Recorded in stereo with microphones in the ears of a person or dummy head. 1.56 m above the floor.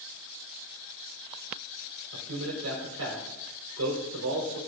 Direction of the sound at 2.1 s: 85° right.